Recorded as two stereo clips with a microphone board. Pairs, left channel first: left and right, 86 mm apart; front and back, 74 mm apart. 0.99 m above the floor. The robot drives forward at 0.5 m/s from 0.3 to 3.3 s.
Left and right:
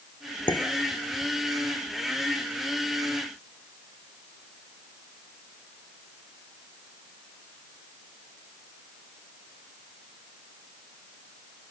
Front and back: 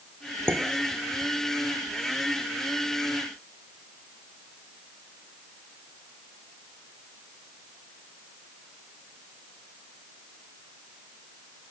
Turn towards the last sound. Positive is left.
turn(degrees=145)